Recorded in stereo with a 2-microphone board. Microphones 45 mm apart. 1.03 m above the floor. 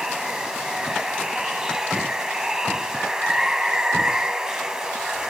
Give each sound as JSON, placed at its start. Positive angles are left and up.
{"t": 0.0, "sound": "running water", "side_deg": -15, "distance_m": 1.0}